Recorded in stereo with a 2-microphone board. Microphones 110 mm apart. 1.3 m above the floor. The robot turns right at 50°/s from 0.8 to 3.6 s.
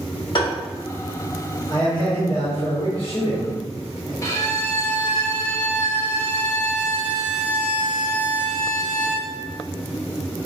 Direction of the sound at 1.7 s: 40° left.